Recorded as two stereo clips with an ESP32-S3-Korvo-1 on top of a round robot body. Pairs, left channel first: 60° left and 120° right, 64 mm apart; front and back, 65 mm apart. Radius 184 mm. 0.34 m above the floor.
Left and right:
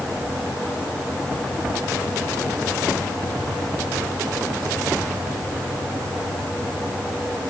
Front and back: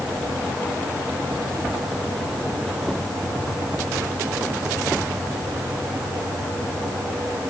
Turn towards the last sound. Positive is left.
No sound to turn to.